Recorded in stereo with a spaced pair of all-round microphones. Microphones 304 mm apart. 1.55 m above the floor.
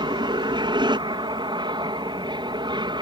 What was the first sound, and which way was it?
An aircraft, 15° right (ahead or behind).